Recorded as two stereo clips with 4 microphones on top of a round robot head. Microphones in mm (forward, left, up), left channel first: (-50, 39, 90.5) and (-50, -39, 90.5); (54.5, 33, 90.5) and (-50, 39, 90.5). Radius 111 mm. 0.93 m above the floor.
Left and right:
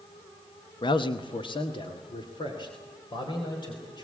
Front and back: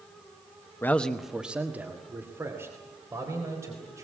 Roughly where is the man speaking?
Ahead left.